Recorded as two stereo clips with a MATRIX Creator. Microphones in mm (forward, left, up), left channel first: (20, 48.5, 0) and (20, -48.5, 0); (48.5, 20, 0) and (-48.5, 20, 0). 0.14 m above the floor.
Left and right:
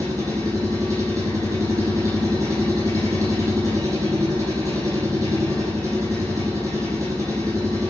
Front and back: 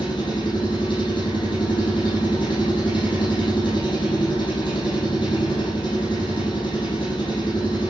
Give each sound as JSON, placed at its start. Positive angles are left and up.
{"t": 0.0, "sound": "an engine running", "azimuth_deg": -35, "distance_m": 6.5}